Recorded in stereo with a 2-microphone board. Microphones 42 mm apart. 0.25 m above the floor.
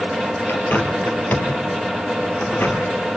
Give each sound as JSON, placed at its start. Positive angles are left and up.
{"t": 0.5, "sound": "a bird", "side_deg": 50, "distance_m": 2.5}